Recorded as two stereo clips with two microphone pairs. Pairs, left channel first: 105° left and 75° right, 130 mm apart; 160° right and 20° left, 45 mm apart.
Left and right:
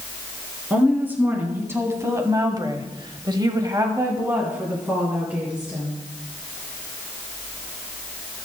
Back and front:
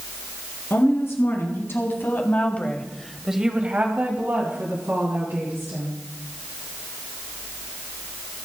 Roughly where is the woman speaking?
Behind right.